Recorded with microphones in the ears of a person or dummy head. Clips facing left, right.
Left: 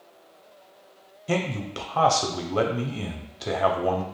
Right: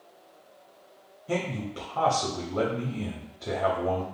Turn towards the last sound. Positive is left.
turn(degrees=75)  # may be behind; listen again after turning